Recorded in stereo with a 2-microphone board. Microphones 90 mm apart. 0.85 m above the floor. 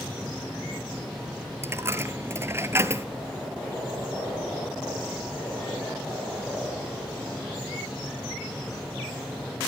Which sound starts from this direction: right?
A dropped coin, at 1.6 s.